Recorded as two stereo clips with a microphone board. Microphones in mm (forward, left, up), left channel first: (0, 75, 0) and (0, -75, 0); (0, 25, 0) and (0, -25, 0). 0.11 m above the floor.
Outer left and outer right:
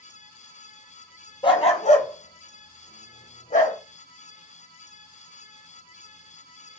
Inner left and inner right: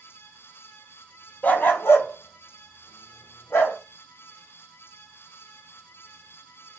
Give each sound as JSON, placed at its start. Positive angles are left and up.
{"t": 1.4, "sound": "a dog barking", "side_deg": 35, "distance_m": 0.7}